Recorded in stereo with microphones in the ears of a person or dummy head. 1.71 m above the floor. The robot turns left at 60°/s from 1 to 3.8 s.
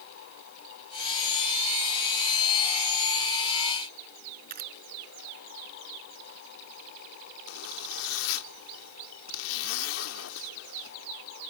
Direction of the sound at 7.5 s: 70° left (ahead or behind).